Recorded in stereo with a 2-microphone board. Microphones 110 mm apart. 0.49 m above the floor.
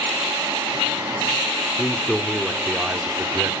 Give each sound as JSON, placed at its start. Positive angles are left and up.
{"t": 1.8, "sound": "a man speaking", "side_deg": 10, "distance_m": 1.6}